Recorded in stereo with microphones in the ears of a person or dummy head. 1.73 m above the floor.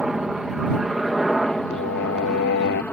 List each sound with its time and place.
0.0 s a helicopter: 5° right (ahead or behind); by 2.9 s 10° left (ahead or behind)
1.7 s singing: 60° left (ahead or behind)